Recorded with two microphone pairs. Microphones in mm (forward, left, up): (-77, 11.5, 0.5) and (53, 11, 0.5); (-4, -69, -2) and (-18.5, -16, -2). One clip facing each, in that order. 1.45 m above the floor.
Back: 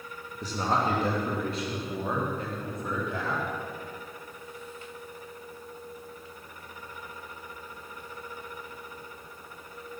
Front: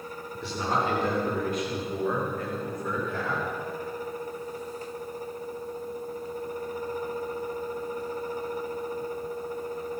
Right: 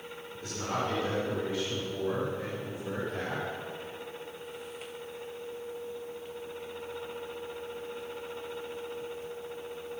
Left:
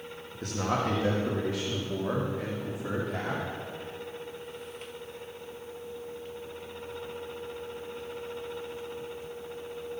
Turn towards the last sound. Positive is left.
turn(degrees=110)